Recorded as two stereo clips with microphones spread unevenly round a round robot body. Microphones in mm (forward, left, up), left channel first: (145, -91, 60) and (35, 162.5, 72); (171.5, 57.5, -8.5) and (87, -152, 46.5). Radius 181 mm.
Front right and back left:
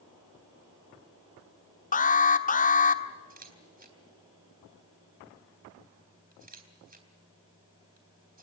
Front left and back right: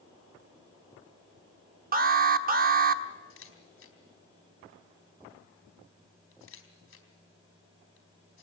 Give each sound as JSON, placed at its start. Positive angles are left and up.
{"t": 1.9, "sound": "an alarm", "azimuth_deg": -75, "distance_m": 1.4}
{"t": 3.3, "sound": "a camera shutter", "azimuth_deg": 55, "distance_m": 3.5}